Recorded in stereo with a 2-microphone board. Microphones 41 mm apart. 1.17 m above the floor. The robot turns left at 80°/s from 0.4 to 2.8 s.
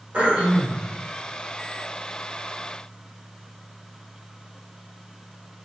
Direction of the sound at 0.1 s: 140° right.